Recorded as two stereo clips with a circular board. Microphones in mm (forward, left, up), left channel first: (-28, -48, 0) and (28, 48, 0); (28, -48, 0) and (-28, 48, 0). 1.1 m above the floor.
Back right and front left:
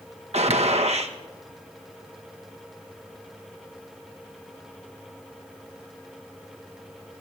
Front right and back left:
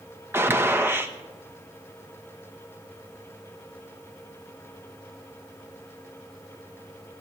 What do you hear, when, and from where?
0.3 s a gunshot: 50° left, 1.0 m